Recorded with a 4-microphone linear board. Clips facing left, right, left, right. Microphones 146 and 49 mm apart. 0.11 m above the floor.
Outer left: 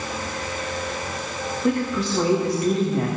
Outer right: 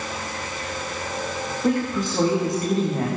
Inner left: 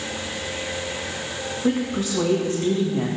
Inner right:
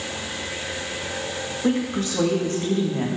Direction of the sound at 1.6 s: 45° right (ahead or behind).